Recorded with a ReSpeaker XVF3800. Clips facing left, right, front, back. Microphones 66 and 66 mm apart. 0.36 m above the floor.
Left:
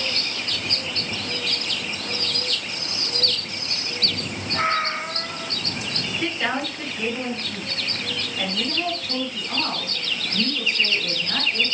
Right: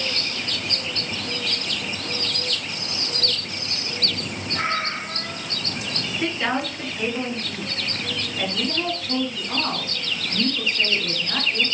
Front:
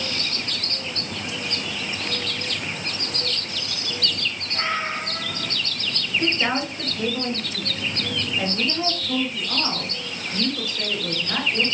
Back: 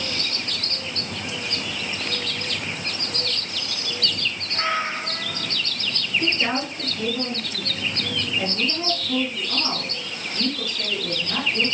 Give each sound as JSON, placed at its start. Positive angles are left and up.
{"t": 4.5, "sound": "a cat meowing", "azimuth_deg": 105, "distance_m": 1.2}
{"t": 6.2, "sound": "a woman speaking", "azimuth_deg": 0, "distance_m": 1.7}